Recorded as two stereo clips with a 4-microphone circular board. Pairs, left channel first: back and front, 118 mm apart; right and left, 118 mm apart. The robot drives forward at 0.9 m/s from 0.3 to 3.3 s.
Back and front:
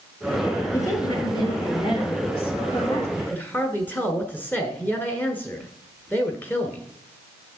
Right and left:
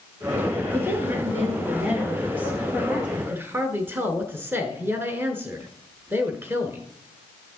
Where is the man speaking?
115° left, 1.1 m; by 6.8 s 130° left, 1.2 m.